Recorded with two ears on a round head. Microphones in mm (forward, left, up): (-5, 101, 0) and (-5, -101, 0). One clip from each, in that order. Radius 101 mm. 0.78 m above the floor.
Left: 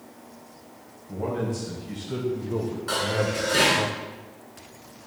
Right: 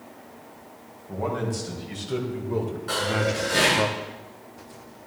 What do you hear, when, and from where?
1.1 s a man speaking: 30° right (ahead or behind), 4 m; by 3.9 s 45° right (ahead or behind), 1.0 m
2.9 s dishes clattering: 20° left (ahead or behind), 6.5 m